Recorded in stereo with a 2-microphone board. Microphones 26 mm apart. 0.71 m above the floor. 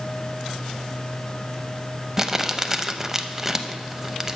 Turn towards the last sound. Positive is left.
turn(degrees=-20)  # may be behind; listen again after turning